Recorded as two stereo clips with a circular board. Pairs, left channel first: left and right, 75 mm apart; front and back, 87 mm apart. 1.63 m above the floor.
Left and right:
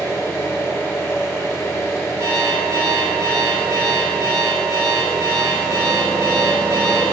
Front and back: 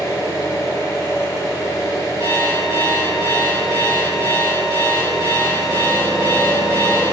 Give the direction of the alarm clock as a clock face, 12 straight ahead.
4 o'clock.